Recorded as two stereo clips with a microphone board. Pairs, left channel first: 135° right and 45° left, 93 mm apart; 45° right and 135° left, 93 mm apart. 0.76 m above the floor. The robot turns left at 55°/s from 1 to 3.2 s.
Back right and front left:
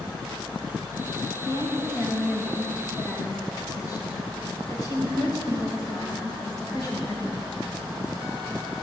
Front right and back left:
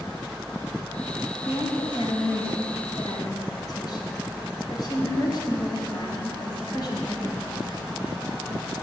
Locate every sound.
1.4 s a woman speaking: 5° left, 3.5 m; by 7.5 s 90° right, 3.5 m